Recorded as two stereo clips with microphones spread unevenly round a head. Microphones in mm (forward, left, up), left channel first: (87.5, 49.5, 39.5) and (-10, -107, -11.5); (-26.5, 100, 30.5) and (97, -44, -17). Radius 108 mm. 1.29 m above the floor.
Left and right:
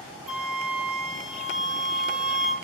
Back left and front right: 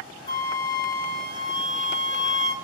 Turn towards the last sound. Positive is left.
turn(degrees=125)